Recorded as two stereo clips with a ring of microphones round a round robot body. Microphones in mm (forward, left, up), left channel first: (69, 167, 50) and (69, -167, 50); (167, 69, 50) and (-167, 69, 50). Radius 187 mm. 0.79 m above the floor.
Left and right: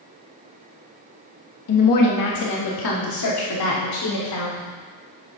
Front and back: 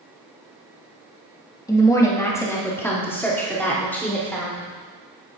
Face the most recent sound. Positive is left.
turn(degrees=85)